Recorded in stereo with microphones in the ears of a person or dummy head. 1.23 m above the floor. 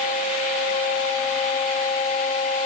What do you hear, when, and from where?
Only background noise.